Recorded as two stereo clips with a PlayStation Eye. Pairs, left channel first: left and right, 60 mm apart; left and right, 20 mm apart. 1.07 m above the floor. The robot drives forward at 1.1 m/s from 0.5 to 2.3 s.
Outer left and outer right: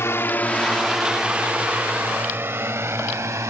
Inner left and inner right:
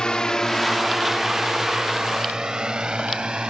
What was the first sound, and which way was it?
A drone, 45° left (ahead or behind).